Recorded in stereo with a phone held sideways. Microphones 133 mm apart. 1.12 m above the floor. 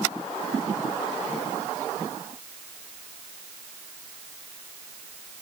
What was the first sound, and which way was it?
Only background noise.